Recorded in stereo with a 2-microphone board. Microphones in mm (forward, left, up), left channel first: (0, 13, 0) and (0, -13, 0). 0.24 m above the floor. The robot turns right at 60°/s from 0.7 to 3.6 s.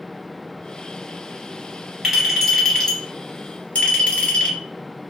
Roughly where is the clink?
Ahead.